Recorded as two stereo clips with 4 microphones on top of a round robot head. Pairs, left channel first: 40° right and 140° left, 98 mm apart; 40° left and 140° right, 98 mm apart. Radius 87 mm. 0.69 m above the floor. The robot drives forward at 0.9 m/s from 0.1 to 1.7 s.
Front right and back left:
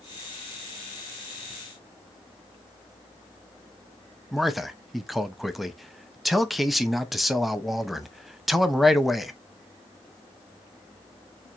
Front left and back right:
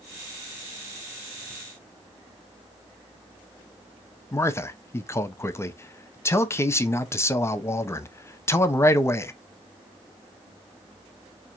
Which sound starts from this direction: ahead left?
A man speaking, at 4.3 s.